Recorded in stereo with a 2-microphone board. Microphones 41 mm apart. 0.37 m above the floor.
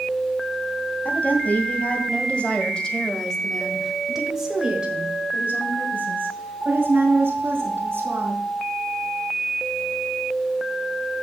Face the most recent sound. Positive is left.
turn(degrees=-70)  # may be behind; listen again after turning